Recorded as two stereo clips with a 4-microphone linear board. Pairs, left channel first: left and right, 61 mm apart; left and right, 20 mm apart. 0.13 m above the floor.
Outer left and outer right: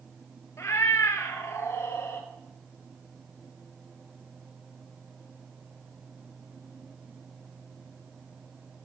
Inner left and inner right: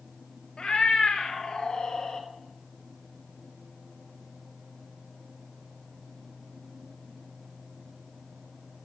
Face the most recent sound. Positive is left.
turn(degrees=40)  # may be behind; listen again after turning